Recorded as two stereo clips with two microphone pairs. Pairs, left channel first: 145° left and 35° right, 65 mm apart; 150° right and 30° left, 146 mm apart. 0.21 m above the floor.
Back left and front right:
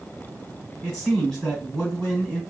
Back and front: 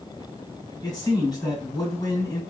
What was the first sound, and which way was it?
A man speaking, 145° right.